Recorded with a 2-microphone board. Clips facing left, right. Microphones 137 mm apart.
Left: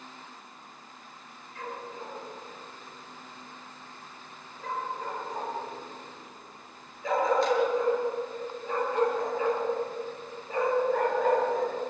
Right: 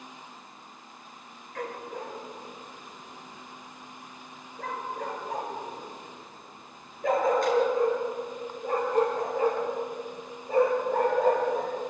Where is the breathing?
I don't hear breathing.